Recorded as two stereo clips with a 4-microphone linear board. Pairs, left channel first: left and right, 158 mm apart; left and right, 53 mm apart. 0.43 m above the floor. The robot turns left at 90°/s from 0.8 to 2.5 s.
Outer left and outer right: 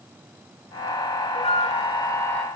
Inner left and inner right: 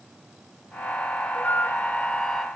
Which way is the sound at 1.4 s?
105° left.